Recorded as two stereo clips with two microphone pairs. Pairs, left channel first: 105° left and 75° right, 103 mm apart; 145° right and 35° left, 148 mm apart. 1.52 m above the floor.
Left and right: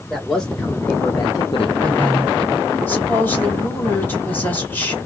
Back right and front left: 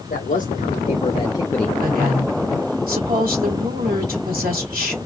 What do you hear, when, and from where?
0.1 s a man speaking: 170° right, 1.6 m; by 1.7 s 130° left, 0.8 m
1.8 s a woman speaking: 35° left, 3 m